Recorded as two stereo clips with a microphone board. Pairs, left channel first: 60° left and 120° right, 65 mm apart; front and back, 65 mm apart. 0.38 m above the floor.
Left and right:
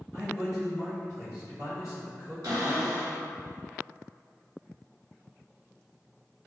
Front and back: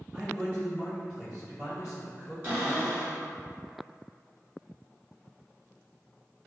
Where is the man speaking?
115° right, 1.8 m.